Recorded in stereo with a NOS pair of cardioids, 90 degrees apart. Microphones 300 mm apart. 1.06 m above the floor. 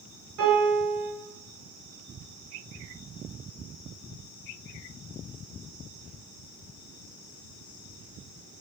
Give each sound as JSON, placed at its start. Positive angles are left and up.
{"t": 0.4, "sound": "a piano", "azimuth_deg": -70, "distance_m": 1.8}